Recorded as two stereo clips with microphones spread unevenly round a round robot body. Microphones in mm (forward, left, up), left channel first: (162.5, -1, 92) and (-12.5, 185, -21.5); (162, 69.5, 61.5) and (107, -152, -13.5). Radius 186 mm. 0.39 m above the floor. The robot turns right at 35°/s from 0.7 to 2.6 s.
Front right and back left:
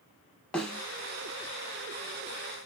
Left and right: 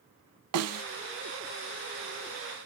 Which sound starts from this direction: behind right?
A snare drum, at 0.5 s.